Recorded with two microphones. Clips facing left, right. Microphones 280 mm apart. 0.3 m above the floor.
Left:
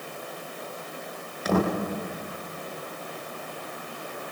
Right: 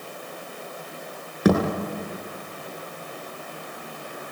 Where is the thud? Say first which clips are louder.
Right 5 dB; 70° right (ahead or behind), 8 m.